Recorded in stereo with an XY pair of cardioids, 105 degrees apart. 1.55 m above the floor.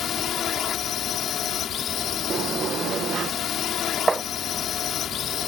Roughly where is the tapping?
Ahead.